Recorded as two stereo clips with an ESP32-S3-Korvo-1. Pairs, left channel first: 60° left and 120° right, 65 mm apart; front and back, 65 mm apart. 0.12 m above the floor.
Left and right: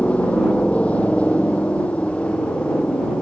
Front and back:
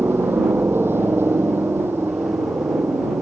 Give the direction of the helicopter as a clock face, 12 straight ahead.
8 o'clock.